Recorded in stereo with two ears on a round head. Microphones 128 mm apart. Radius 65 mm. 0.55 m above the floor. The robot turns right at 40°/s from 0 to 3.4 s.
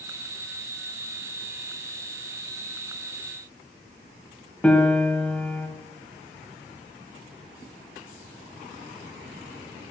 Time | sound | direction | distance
4.6 | a piano | 10° left (ahead or behind) | 1.8 m